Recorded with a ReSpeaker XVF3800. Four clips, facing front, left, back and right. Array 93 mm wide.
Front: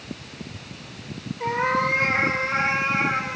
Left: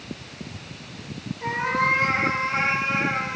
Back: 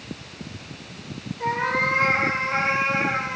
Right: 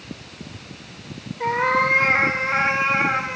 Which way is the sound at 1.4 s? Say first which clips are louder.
Right 4 dB, front 1 dB; 85° right.